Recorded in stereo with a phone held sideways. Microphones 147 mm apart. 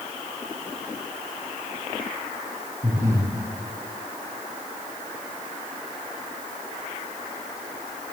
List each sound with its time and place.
2.8 s breathing: 20° right (ahead or behind), 4 m